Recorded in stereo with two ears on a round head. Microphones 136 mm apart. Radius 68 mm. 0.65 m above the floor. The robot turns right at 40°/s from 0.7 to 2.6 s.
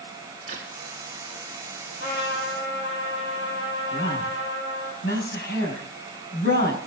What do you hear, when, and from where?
0.5 s a crack: 45° right (ahead or behind), 4.5 m
2.0 s a trumpet: 60° left (ahead or behind), 7 m; by 4.9 s 85° left, 7 m
3.9 s a woman speaking: 65° left (ahead or behind), 5 m